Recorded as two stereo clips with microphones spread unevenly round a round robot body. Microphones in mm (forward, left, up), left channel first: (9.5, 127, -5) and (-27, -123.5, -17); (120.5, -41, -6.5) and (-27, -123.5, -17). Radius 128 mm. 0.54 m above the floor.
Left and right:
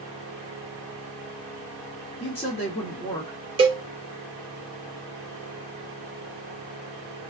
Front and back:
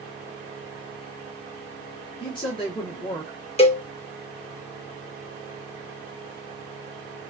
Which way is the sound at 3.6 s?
30° right.